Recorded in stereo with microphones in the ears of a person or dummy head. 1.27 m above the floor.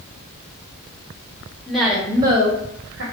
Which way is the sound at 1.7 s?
5° left (ahead or behind).